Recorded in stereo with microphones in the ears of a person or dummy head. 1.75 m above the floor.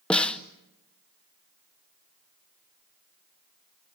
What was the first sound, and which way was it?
A snare drum, 5° left (ahead or behind).